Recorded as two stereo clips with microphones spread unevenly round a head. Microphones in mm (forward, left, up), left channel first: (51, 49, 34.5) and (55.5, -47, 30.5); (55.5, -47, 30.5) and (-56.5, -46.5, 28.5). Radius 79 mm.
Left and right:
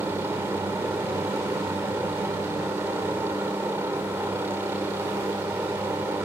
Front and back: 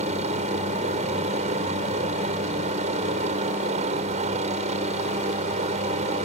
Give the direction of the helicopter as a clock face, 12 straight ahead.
5 o'clock.